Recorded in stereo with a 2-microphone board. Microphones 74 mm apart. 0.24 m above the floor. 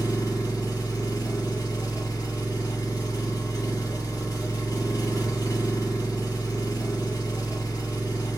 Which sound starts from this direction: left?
An engine running, at 0.0 s.